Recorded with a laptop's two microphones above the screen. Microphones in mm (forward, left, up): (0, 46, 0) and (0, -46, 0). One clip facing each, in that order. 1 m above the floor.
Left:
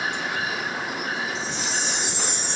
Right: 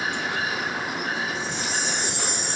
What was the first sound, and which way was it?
A chime, 45° right (ahead or behind).